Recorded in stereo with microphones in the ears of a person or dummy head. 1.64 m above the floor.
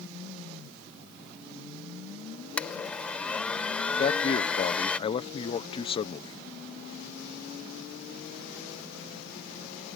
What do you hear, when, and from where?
2.6 s a blender: 5° left (ahead or behind)
4.0 s a man speaking: 30° left (ahead or behind)